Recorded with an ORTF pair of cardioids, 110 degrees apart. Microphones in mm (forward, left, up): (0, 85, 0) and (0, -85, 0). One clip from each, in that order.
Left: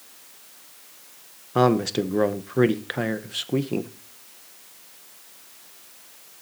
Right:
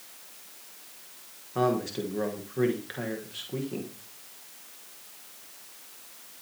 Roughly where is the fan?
No fan in this recording.